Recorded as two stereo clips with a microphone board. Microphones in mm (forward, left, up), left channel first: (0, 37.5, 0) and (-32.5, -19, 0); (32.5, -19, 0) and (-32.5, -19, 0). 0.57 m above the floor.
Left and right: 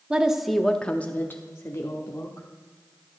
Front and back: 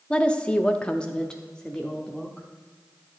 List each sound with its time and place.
0.1 s a woman speaking: 60° right, 0.7 m; by 2.5 s 80° left, 1.1 m